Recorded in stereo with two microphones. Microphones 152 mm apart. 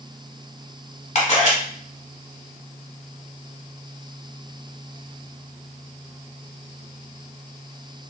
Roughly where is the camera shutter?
Left.